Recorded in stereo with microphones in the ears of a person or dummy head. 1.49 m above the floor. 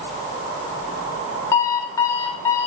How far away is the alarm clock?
About 2 m.